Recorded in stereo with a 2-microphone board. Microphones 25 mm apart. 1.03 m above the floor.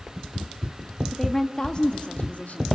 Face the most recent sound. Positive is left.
turn(degrees=75)  # may be behind; listen again after turning